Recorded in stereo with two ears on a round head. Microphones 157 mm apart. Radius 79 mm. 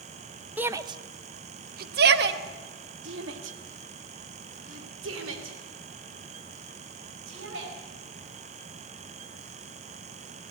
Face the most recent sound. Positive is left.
turn(degrees=-80)